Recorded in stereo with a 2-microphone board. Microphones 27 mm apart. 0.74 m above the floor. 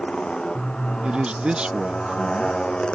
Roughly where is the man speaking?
Right.